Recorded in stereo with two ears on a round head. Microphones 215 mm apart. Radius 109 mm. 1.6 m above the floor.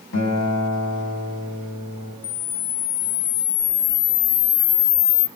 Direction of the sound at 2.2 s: 45° left (ahead or behind).